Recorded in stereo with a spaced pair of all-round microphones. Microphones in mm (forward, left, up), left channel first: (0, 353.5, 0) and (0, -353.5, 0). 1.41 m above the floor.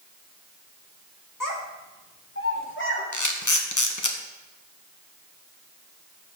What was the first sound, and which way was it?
A child speaking, 25° left (ahead or behind).